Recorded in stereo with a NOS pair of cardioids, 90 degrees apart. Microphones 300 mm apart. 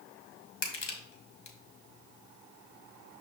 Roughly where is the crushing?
Ahead left.